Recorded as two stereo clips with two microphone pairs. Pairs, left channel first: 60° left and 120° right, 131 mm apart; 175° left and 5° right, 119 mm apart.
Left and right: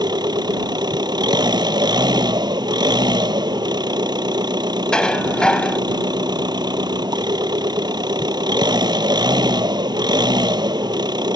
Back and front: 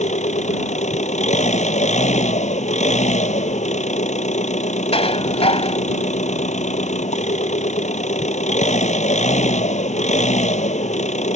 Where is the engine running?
175° right.